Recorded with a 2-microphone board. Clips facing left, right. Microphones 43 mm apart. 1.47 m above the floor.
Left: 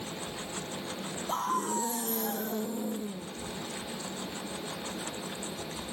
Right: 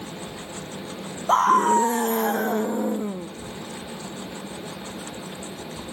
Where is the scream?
80° right; by 3.3 s 70° right (ahead or behind).